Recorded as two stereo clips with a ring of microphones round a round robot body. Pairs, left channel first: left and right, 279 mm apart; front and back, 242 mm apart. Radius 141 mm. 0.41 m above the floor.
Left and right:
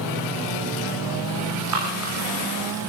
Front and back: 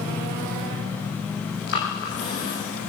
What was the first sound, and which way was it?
Breathing, 60° right.